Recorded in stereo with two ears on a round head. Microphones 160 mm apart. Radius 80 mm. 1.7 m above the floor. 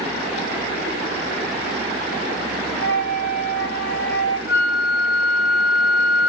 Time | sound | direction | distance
2.8 | a flute | 60° left (ahead or behind) | 2.5 m
4.5 | a flute | 55° left (ahead or behind) | 3 m